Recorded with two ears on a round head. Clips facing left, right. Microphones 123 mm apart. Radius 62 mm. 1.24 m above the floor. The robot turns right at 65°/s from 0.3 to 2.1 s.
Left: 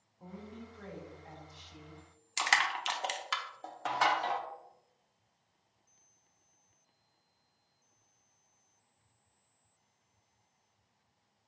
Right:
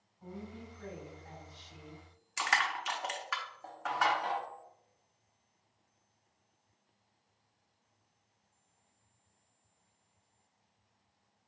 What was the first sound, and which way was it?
A woman speaking, 80° left.